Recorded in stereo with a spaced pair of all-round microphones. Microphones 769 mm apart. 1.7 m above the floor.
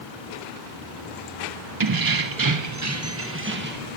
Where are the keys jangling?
30° right (ahead or behind), 0.6 m; by 4.0 s 10° right (ahead or behind), 1.6 m.